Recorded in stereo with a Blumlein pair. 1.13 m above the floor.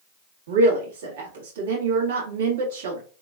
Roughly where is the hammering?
I don't hear hammering.